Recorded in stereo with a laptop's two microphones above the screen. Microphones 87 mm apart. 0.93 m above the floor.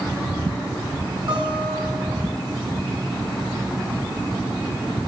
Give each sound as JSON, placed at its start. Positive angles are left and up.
{"t": 1.3, "sound": "a guitar", "side_deg": -60, "distance_m": 2.5}